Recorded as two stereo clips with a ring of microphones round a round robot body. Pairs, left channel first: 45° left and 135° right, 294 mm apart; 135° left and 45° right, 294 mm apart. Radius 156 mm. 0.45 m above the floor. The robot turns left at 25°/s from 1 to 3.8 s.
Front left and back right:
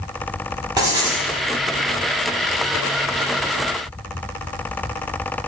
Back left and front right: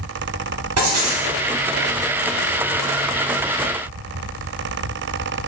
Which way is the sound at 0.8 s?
60° right.